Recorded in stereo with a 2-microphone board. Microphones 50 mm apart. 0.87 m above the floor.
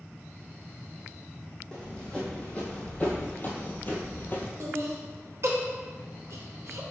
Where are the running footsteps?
15° left (ahead or behind), 1.7 m; by 4.5 s 35° left (ahead or behind), 1.0 m.